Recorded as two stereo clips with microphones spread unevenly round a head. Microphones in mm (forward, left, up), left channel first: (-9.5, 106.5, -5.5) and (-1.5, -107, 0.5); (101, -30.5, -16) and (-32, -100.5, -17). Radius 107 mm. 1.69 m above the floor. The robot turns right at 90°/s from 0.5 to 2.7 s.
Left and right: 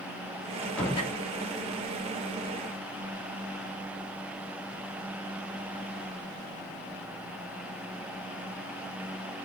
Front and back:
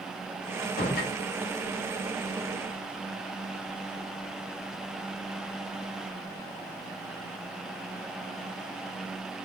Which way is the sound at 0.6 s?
10° right.